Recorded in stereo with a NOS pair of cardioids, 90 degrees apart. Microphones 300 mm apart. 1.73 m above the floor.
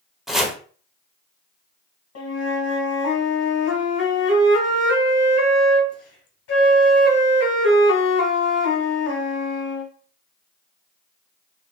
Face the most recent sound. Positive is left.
turn(degrees=55)